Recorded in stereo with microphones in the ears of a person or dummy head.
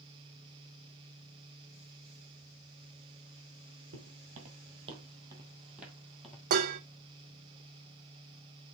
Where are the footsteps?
50° right (ahead or behind), 2.5 m; by 6.4 s 5° left (ahead or behind), 2 m.